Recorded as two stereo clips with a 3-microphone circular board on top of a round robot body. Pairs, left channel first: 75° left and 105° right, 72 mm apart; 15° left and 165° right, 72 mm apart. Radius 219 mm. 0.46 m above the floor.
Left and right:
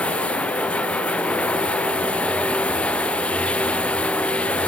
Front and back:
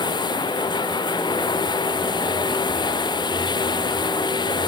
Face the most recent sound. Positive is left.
turn(degrees=0)